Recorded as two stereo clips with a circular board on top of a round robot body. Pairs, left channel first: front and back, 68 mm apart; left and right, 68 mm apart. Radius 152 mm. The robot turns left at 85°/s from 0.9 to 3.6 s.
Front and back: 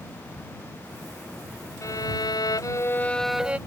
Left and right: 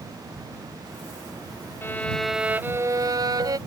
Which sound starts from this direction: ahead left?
A violin, at 1.8 s.